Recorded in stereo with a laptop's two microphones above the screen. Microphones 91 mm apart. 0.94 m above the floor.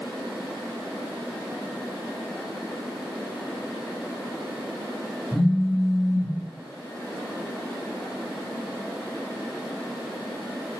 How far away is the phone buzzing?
About 1.1 m.